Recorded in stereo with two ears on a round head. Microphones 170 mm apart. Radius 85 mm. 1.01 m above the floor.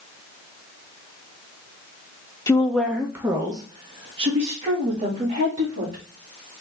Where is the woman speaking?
15° left (ahead or behind), 0.6 m; by 6.0 s 35° right (ahead or behind), 2.5 m.